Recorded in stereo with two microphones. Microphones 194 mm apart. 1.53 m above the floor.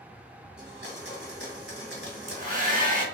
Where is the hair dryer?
40° right (ahead or behind), 1.4 m.